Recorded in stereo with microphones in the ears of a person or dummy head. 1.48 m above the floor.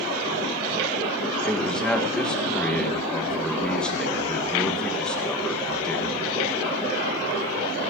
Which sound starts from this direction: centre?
A man speaking, at 1.4 s.